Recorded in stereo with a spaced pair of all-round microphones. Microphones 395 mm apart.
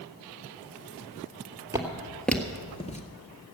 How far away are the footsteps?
About 1.9 m.